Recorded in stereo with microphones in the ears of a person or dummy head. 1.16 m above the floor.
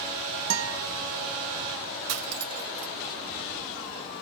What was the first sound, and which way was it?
A guitar, 65° right (ahead or behind).